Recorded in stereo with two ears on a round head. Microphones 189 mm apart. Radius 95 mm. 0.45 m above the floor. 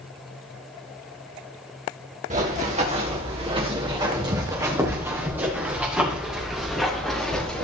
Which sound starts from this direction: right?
Running footsteps, at 2.3 s.